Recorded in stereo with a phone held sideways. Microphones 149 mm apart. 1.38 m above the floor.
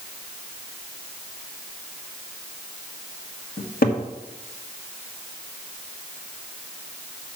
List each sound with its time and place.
3.6 s a cupboard door: 75° left (ahead or behind), 1.3 m